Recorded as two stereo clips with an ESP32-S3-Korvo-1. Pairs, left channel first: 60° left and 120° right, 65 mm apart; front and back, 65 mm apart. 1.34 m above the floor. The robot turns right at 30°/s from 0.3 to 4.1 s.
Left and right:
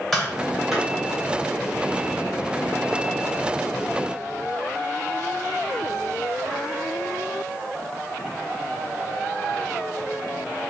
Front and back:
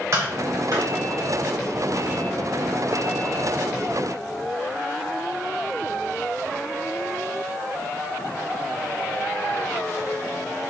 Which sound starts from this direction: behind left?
Tapping, at 0.1 s.